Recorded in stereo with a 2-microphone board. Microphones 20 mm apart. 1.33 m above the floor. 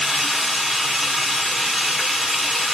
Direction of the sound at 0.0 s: 10° right (ahead or behind).